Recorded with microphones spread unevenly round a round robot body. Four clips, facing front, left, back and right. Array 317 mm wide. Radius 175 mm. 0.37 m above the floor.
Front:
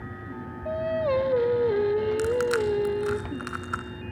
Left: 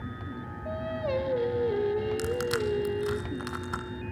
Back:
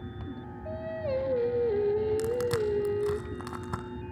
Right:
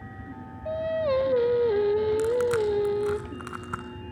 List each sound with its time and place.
0.7 s singing: 70° right, 1.1 m
2.2 s crushing: 165° right, 0.8 m